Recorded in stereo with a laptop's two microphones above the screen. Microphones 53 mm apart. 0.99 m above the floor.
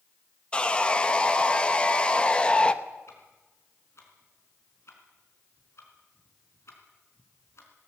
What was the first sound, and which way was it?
Sawing, 20° left (ahead or behind).